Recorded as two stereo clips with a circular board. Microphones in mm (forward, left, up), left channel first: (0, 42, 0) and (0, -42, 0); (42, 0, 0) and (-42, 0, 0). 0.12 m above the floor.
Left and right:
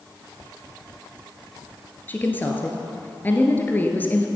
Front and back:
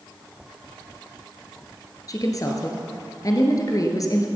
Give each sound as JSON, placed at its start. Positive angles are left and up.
{"t": 2.1, "sound": "a woman speaking", "azimuth_deg": 30, "distance_m": 1.7}